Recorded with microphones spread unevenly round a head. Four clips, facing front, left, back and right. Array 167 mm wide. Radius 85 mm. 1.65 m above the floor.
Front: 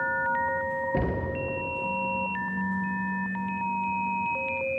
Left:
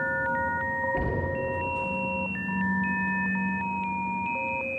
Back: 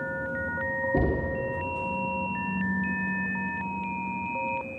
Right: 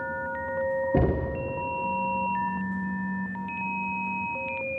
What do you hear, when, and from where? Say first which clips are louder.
0.9 s knocking: right 3 dB, back 2 dB; 110° right, 0.9 m